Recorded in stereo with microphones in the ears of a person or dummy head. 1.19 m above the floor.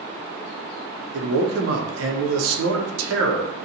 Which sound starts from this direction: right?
A man speaking, at 1.1 s.